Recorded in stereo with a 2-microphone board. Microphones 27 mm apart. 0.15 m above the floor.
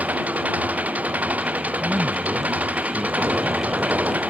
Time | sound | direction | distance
0.0 | an engine running | 70° right (ahead or behind) | ?
1.8 | a man speaking | 60° right (ahead or behind) | ?
3.2 | an explosion | 75° right (ahead or behind) | ?